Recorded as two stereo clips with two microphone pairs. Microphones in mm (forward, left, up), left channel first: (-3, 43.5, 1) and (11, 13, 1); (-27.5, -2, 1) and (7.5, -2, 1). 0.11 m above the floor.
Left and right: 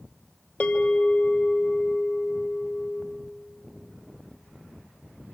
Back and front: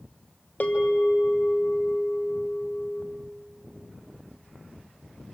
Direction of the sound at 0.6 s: 140° left.